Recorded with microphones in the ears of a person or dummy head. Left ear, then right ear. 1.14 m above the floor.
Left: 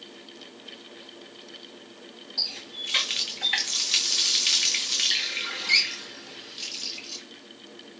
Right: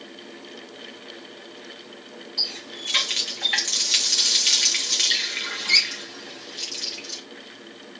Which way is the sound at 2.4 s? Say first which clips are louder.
Right 2 dB; 5° right (ahead or behind).